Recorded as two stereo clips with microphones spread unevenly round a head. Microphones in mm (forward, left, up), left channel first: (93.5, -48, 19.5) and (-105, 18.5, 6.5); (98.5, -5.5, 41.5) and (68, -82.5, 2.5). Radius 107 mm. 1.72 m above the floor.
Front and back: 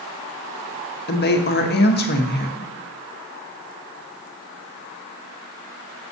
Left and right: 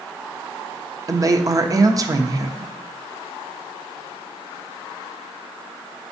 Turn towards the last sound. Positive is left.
turn(degrees=-60)